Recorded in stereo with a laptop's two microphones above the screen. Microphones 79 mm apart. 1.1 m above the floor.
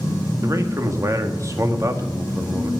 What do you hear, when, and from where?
0.4 s a man speaking: 40° right (ahead or behind), 1.7 m